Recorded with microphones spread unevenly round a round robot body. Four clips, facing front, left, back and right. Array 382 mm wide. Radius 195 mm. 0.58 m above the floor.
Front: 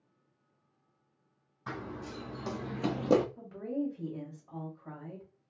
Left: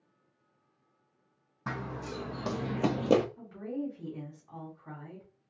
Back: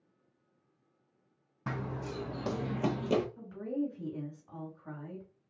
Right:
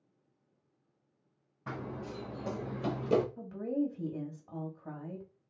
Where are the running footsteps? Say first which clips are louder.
Left 3 dB, back 2 dB; 145° left, 1.9 m; by 3.3 s 20° left, 0.7 m.